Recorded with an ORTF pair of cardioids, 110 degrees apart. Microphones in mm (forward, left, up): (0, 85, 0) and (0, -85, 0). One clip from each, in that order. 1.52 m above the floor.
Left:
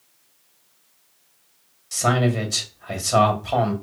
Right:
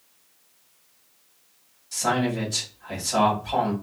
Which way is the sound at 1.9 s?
60° left.